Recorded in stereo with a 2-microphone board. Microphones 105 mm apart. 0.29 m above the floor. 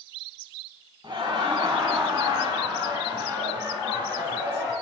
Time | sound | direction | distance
1.0 | laughter | 45° right (ahead or behind) | 2.0 m